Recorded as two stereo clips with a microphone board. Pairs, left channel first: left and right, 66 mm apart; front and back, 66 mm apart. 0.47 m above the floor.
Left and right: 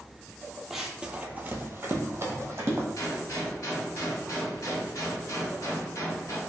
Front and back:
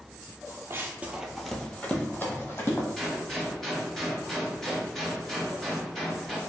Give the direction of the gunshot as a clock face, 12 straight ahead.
9 o'clock.